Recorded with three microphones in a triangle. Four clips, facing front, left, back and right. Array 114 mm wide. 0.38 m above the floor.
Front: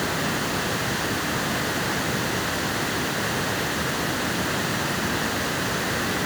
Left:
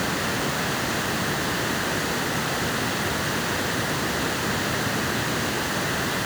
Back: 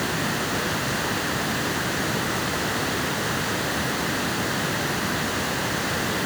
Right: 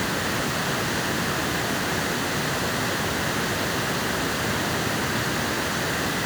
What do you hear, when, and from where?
Only background noise.